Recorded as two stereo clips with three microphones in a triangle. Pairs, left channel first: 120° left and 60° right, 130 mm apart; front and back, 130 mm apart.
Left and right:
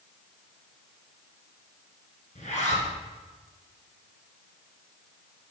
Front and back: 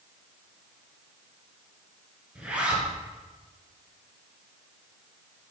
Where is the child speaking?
No child speaking in this recording.